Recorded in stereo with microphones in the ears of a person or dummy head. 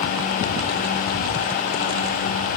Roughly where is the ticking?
No ticking in this recording.